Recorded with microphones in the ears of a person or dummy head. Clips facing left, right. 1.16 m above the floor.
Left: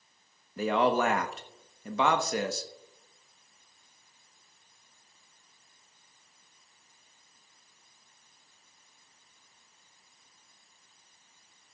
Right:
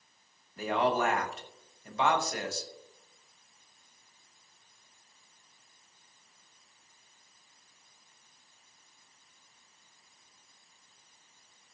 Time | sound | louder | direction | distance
0.6 | a man speaking | left 3 dB | 60° left (ahead or behind) | 1.3 m